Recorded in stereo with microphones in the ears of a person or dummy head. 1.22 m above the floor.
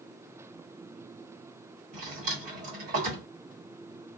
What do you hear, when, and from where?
1.9 s a drawer: 45° right (ahead or behind), 1.1 m